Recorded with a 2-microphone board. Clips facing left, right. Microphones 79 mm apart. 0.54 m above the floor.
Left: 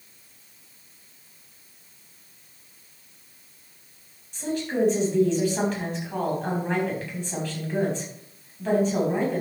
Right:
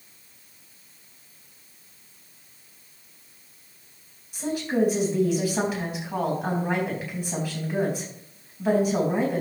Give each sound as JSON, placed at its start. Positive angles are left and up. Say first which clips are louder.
{"t": 4.3, "sound": "a woman speaking", "louder": "right 1 dB", "side_deg": -10, "distance_m": 4.0}